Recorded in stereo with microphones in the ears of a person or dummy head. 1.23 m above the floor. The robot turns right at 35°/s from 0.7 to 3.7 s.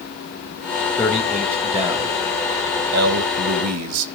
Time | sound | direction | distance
1.0 | a man speaking | 170° left | 1.9 m